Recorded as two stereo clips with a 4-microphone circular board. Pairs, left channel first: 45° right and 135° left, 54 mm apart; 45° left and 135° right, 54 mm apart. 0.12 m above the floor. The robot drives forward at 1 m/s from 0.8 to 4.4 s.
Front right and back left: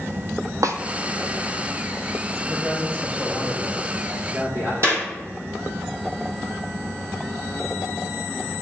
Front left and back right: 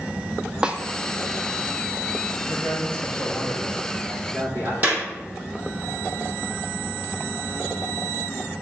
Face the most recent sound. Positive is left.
turn(degrees=165)